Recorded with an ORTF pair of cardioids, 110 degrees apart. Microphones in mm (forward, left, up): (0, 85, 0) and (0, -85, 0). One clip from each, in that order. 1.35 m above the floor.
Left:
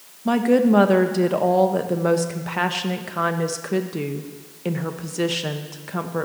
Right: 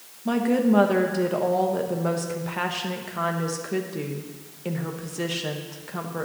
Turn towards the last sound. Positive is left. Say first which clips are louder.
# left 5 dB
turn(degrees=25)